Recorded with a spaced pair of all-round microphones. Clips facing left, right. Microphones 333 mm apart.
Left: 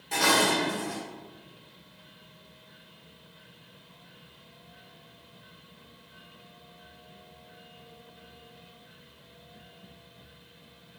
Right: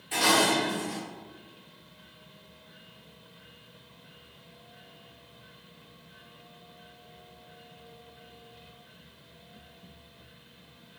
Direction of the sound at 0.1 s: 55° left (ahead or behind).